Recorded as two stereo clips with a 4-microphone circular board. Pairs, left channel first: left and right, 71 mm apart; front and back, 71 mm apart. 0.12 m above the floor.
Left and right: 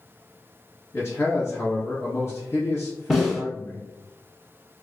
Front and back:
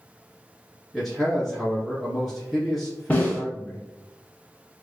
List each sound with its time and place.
0.9 s a man speaking: 90° left, 1.5 m
3.1 s a snare drum: 5° left, 1.1 m